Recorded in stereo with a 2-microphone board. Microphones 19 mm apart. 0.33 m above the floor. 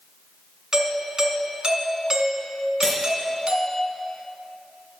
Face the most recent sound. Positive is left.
turn(degrees=25)  # may be behind; listen again after turning